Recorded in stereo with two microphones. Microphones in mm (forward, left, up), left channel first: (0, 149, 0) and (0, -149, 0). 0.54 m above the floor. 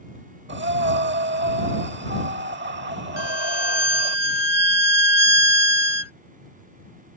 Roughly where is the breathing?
Right.